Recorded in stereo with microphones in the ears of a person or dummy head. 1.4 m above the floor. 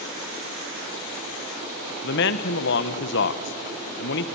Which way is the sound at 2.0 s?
55° left (ahead or behind).